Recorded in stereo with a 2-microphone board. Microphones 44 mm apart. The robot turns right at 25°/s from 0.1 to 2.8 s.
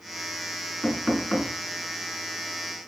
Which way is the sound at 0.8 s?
35° left (ahead or behind).